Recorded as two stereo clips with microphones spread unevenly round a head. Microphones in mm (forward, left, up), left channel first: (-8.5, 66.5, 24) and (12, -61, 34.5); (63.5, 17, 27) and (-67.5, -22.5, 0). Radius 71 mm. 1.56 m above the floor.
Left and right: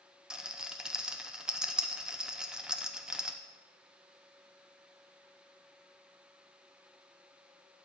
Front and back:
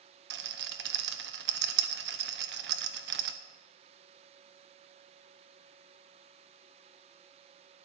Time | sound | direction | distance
0.3 | a rattle | 165° right | 0.8 m